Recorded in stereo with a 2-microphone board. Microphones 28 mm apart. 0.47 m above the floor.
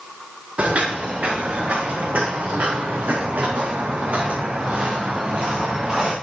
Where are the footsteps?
55° right (ahead or behind), 4 m; by 6.1 s 25° right (ahead or behind), 3.5 m.